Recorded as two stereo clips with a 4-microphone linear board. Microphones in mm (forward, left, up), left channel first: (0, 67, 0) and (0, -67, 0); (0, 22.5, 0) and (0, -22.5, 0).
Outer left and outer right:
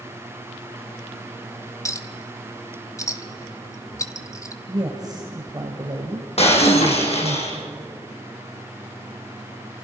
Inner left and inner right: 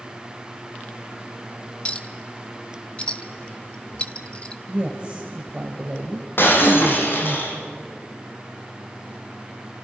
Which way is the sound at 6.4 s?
55° left (ahead or behind).